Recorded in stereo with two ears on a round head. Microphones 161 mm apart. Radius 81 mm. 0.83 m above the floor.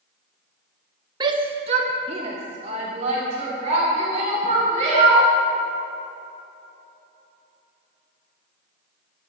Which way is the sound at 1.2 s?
25° right (ahead or behind).